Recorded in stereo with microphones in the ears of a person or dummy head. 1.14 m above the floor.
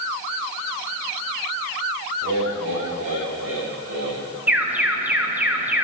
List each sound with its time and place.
2.2 s laughter: 65° right (ahead or behind), 5.5 m; by 4.2 s 75° right (ahead or behind), 6.5 m
4.5 s an alarm: 5° right (ahead or behind), 1.2 m